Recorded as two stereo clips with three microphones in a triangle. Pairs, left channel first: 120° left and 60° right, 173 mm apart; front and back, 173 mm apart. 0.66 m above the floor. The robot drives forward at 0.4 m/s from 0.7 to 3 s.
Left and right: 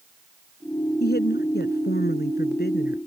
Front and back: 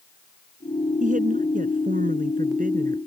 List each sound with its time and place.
1.0 s a woman speaking: 140° left